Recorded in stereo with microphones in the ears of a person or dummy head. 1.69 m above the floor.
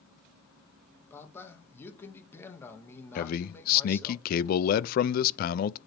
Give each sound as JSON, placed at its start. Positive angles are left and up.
{"t": 1.1, "sound": "a man speaking", "side_deg": 25, "distance_m": 2.0}
{"t": 3.1, "sound": "a man speaking", "side_deg": 50, "distance_m": 0.5}